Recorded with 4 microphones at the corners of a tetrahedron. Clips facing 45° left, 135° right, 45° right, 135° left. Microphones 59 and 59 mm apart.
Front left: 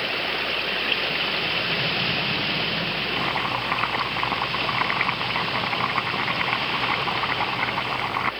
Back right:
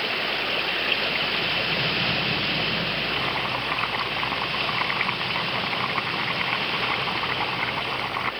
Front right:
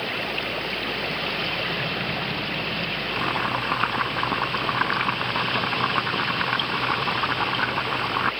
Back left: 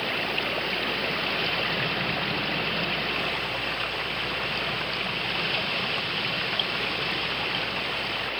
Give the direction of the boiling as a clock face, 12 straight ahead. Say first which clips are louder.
Front left 1 dB, front right 4 dB; 1 o'clock.